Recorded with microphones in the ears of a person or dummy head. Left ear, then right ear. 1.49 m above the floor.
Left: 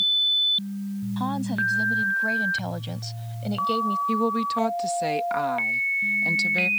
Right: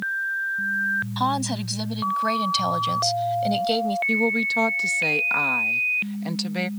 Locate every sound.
1.2 s a woman speaking: 35° right (ahead or behind); by 4.0 s 30° right (ahead or behind)
4.1 s a woman speaking: 5° right (ahead or behind)